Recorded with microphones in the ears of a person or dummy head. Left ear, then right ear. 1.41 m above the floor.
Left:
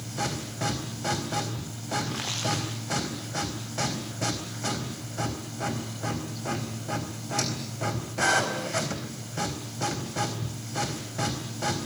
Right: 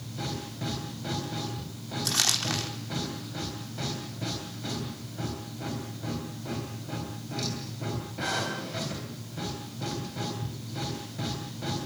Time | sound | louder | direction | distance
0.0 | a machine running | left 5 dB | 35° left (ahead or behind) | 3.5 m
2.0 | crumpling | right 9 dB | 80° right | 4 m